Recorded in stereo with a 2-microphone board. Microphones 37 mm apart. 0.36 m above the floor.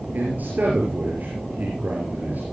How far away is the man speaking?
About 6.5 m.